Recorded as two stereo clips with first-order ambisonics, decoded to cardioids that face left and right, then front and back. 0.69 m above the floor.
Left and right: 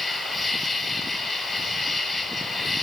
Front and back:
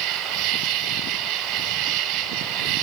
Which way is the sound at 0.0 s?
160° left.